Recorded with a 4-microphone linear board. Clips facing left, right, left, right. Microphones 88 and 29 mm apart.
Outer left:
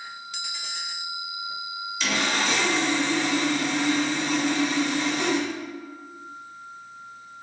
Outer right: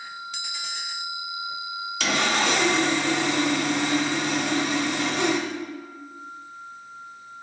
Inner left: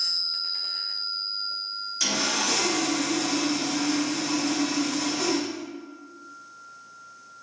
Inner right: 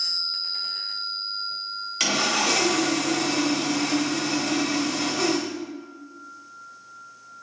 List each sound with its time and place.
2.0 s sawing: 65° right (ahead or behind), 0.6 m